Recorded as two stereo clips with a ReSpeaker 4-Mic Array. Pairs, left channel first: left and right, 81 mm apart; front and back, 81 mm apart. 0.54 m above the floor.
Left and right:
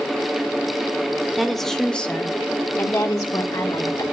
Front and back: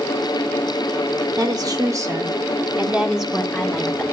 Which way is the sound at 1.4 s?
Straight behind.